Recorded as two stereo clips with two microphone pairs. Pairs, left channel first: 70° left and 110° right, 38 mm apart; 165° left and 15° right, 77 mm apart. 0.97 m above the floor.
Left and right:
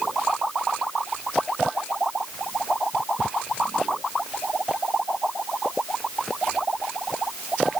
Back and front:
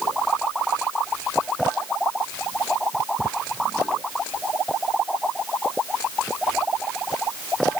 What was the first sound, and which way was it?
Only background noise.